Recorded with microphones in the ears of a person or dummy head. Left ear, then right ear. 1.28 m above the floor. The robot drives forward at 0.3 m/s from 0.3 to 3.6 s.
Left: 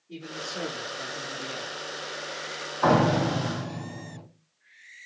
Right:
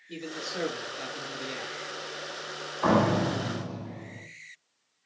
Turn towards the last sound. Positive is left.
turn(degrees=15)  # may be behind; listen again after turning